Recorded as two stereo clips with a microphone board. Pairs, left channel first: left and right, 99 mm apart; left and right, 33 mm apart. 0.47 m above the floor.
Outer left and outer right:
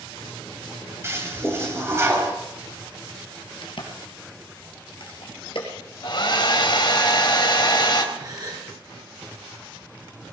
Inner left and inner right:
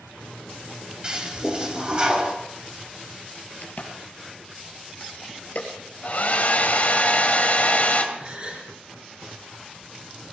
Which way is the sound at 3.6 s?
60° left (ahead or behind).